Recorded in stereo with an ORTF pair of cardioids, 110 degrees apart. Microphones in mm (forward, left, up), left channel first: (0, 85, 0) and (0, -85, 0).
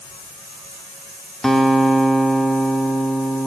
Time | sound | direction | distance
1.4 | a guitar | straight ahead | 0.6 m